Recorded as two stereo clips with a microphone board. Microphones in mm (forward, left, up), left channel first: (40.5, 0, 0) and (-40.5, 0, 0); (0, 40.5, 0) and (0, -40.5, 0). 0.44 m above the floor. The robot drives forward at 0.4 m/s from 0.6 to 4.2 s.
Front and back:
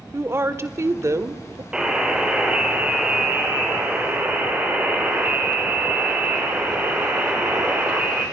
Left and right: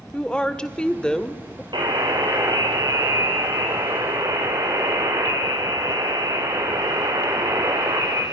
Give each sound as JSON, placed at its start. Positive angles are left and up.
{"t": 0.1, "sound": "a woman speaking", "azimuth_deg": 160, "distance_m": 1.2}
{"t": 1.7, "sound": "a buzzer", "azimuth_deg": -100, "distance_m": 3.5}